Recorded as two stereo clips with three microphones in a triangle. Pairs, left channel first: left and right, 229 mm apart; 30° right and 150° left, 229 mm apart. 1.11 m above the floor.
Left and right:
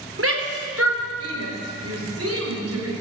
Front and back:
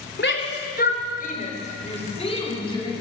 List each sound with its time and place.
0.2 s a shout: 70° right, 4 m; by 2.9 s 100° right, 6.5 m